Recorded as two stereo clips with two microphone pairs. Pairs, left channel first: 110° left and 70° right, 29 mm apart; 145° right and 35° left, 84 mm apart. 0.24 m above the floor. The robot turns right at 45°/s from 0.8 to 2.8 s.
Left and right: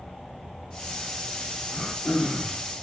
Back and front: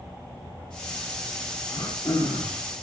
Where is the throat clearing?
165° left, 8 m; by 2.6 s 155° right, 8 m.